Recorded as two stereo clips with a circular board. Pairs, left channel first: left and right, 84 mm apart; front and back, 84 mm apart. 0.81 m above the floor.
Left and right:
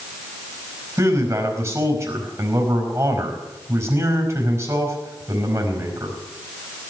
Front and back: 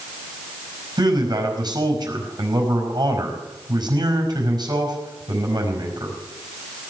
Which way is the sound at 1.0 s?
145° right.